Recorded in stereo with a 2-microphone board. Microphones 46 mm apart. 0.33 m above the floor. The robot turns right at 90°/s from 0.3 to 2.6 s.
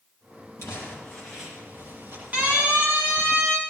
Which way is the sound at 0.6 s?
115° left.